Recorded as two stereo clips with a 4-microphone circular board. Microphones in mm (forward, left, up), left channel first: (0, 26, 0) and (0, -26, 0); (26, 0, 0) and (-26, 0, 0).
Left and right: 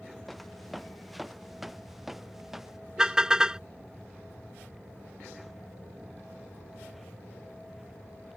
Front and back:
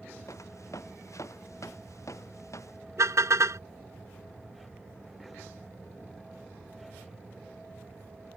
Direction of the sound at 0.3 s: 5° left.